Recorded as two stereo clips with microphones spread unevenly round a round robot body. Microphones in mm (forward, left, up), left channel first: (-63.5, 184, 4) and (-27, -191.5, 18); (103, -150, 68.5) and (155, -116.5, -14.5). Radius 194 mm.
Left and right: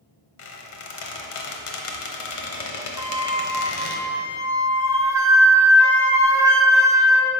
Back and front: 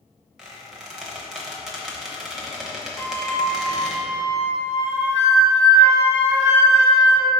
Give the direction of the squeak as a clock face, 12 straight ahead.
10 o'clock.